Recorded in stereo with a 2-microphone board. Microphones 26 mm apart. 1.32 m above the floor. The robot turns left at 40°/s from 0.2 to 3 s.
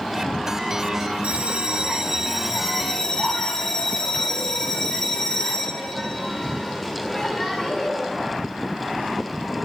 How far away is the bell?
About 6.5 m.